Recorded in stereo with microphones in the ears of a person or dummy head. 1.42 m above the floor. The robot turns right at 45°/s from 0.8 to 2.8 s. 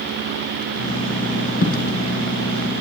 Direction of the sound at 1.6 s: 60° left (ahead or behind).